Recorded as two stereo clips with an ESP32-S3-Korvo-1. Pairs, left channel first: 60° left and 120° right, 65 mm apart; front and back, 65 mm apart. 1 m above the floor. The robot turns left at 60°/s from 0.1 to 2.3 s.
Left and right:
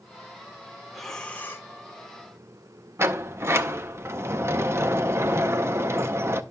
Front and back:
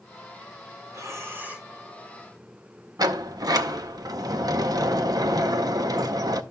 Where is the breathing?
155° left, 1.1 m; by 1.7 s 105° left, 1.1 m.